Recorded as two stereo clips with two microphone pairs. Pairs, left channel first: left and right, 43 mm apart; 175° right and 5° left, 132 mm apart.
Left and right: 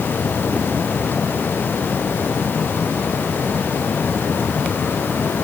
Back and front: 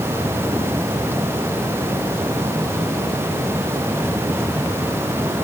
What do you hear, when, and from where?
Only background noise.